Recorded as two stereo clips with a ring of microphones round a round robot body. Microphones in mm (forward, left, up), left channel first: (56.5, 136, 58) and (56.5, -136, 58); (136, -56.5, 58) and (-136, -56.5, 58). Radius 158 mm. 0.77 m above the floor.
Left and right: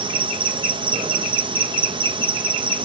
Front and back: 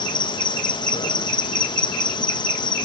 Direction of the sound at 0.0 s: 50° right.